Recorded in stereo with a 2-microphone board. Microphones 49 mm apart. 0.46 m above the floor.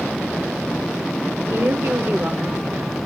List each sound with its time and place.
1.5 s a woman speaking: 45° right (ahead or behind), 1.4 m